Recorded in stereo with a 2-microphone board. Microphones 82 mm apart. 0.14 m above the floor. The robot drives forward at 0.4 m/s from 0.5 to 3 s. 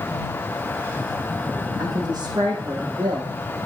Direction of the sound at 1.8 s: 60° right (ahead or behind).